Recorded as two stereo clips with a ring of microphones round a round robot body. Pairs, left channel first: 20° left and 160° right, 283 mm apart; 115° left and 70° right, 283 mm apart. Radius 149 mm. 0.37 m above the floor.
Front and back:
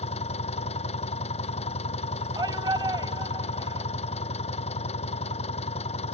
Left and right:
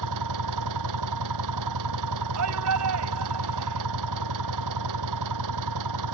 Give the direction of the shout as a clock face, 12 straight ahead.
3 o'clock.